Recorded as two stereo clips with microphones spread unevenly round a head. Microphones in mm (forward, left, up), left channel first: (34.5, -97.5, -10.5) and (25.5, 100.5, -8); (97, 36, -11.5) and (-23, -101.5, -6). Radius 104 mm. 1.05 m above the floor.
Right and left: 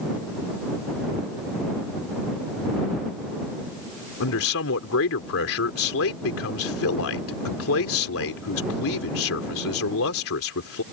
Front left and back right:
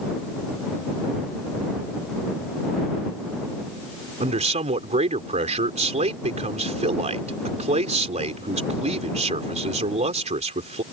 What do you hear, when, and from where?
4.2 s a man speaking: 80° right